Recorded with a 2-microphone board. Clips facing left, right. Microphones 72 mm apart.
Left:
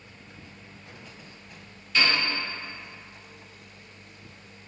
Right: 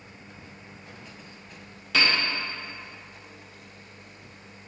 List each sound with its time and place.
1.9 s a piano: 75° right (ahead or behind), 0.8 m